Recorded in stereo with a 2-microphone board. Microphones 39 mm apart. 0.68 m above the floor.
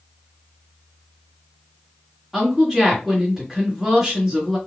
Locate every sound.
2.3 s a woman speaking: 10° right (ahead or behind), 1.3 m